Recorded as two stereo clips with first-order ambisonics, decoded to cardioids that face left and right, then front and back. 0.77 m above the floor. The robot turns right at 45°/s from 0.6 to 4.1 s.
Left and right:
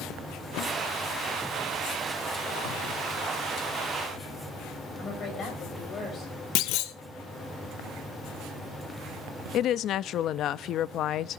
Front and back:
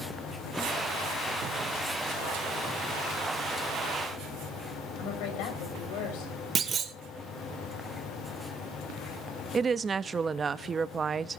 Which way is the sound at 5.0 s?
30° left.